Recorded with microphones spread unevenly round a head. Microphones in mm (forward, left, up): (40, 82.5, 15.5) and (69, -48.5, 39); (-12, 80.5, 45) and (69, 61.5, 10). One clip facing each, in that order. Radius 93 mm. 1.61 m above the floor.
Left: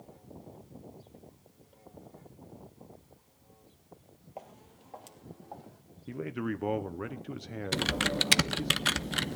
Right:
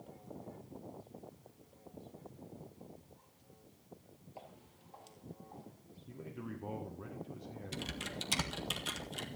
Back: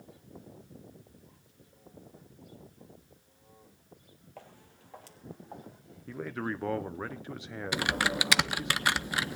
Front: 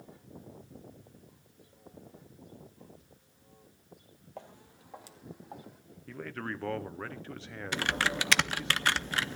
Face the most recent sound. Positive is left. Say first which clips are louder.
# left 14 dB, back 1 dB
turn(degrees=110)